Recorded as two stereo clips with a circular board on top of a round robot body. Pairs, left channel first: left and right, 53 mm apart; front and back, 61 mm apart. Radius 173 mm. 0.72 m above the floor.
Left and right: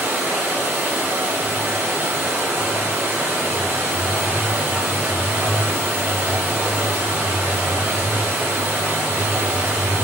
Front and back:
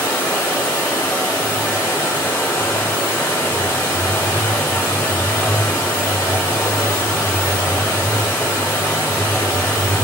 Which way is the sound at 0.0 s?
40° right.